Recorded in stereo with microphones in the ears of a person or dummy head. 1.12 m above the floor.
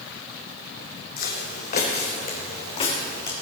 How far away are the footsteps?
About 2.5 m.